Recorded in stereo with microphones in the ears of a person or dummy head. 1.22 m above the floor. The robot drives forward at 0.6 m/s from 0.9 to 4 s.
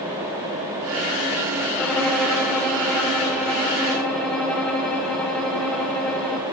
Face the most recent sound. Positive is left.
turn(degrees=5)  # may be behind; listen again after turning